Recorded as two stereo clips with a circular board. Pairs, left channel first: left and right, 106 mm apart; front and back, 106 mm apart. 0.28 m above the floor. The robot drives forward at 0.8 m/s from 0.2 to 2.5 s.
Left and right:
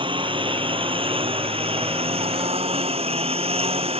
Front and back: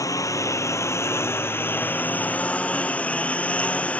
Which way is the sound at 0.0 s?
55° right.